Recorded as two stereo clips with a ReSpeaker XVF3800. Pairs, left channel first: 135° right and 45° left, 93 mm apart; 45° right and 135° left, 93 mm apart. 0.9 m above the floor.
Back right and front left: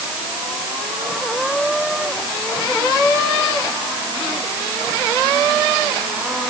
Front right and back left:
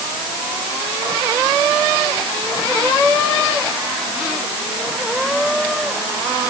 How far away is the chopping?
No chopping in this recording.